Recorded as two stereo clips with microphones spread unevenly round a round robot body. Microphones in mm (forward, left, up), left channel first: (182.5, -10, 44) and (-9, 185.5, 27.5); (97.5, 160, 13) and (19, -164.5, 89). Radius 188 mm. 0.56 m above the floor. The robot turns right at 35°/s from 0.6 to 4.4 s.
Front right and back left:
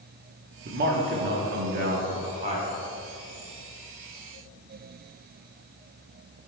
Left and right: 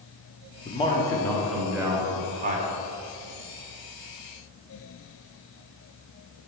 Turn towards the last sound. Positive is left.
turn(degrees=-110)